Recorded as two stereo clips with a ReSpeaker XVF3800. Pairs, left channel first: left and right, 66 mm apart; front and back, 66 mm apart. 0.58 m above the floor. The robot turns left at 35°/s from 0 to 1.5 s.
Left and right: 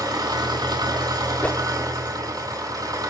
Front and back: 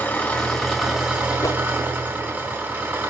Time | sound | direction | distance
0.0 | an engine running | 65° right | 2 m
1.4 | a whoosh | 25° left | 0.7 m